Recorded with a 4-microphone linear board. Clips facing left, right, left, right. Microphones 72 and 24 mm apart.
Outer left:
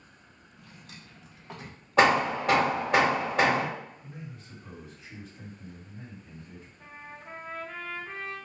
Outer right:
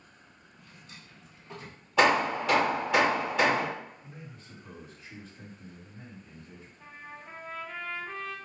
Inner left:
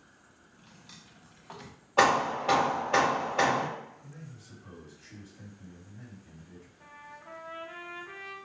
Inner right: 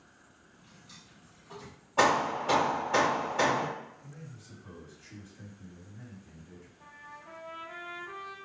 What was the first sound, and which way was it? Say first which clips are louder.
A drawer: outer left 2 dB, inner left 1 dB; 65° left (ahead or behind).